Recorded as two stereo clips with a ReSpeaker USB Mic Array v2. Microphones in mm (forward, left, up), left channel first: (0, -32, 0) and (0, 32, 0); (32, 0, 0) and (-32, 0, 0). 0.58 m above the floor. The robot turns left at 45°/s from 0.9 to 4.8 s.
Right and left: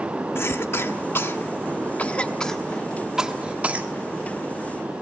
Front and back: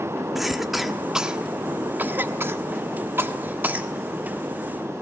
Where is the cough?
95° right, 1.1 m; by 3.9 s 130° left, 1.1 m.